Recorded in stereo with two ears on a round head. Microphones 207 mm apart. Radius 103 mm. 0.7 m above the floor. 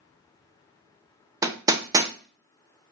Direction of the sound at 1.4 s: 15° right (ahead or behind).